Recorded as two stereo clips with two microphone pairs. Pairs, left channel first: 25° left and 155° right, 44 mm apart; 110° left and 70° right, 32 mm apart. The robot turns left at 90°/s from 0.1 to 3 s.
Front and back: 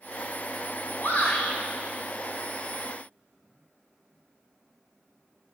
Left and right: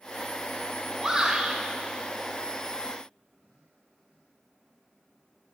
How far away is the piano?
I don't hear a piano.